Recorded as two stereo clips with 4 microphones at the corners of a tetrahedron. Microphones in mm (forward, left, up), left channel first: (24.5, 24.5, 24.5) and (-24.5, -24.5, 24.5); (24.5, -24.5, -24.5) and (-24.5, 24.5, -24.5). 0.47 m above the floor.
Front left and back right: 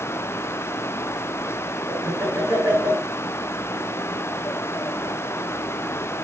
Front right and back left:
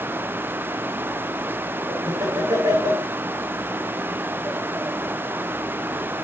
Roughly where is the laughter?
Behind left.